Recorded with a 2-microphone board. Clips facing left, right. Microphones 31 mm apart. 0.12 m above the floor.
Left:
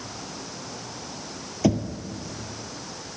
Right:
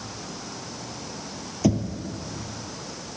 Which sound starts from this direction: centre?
Knocking, at 1.6 s.